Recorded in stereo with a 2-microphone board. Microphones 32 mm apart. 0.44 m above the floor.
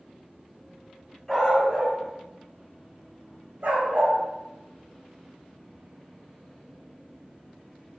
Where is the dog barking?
Centre (ahead or behind), 1.1 m; by 4.2 s 75° right (ahead or behind), 0.9 m.